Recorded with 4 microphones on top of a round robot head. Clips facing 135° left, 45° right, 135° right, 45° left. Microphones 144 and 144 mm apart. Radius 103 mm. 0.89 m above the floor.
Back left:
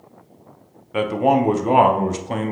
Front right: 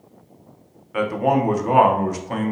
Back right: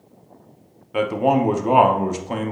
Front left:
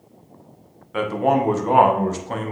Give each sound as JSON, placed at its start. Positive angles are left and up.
{"t": 0.9, "sound": "a man speaking", "azimuth_deg": 165, "distance_m": 0.8}